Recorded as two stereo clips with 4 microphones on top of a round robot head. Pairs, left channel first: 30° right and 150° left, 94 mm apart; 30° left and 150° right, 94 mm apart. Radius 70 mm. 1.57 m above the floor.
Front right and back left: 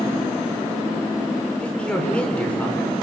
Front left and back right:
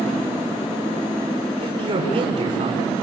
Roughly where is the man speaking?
Right.